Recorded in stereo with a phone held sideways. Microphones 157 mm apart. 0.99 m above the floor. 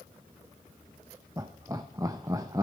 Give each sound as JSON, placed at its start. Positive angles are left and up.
{"t": 1.4, "sound": "laughter", "side_deg": -20, "distance_m": 0.5}